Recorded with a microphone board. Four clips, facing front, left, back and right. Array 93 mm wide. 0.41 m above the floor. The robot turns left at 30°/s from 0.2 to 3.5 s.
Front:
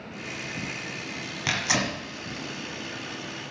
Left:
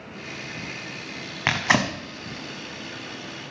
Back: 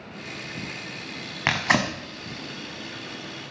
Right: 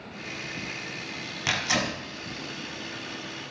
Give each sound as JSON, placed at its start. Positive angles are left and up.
{"t": 1.5, "sound": "tearing paper", "azimuth_deg": 135, "distance_m": 1.0}